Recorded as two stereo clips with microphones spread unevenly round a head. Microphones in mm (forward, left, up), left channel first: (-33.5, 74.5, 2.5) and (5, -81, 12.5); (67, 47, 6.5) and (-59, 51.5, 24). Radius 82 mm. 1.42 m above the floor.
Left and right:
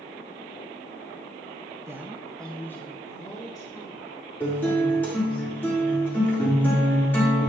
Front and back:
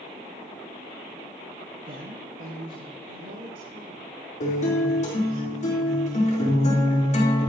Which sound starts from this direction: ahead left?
A guitar, at 4.4 s.